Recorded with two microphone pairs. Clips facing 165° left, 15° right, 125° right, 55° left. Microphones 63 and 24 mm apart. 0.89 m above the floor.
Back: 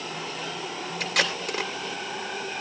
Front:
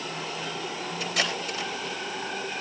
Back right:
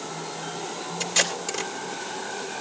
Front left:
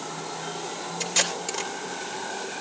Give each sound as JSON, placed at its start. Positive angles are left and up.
{"t": 1.0, "sound": "tape being pulled", "azimuth_deg": 140, "distance_m": 2.5}